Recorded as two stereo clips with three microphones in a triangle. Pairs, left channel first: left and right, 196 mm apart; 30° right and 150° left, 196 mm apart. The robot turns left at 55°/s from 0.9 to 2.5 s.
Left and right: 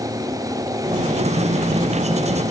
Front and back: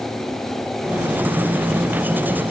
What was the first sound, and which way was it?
Only background noise.